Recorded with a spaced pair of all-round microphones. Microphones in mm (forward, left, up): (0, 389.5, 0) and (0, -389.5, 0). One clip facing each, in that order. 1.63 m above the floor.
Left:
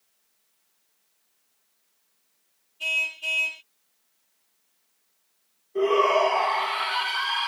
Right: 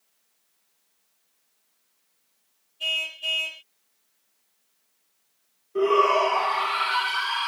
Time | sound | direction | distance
2.8 | a car horn | 40° left (ahead or behind) | ?
5.8 | a shout | 40° right (ahead or behind) | ?